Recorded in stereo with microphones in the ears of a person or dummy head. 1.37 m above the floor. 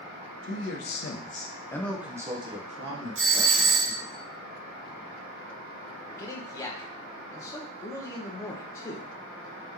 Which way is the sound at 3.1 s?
65° right (ahead or behind).